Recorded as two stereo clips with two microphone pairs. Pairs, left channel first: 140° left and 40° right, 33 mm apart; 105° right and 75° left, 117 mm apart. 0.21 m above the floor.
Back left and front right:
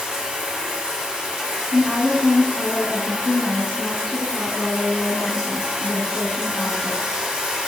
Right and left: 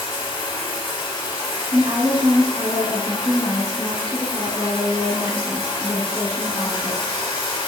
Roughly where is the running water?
Right.